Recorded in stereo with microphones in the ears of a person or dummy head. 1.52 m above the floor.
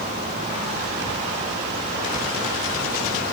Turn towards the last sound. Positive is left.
No sound to turn to.